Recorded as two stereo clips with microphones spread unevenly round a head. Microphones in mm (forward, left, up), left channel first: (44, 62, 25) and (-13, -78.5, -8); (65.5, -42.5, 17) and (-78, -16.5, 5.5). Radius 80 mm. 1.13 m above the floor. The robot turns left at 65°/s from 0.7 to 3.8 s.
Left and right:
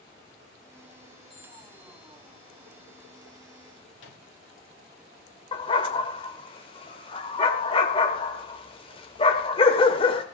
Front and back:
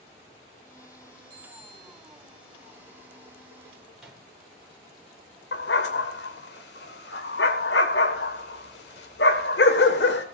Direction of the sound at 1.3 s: 155° left.